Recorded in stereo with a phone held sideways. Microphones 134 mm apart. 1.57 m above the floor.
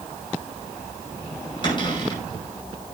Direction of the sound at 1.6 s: 35° left (ahead or behind).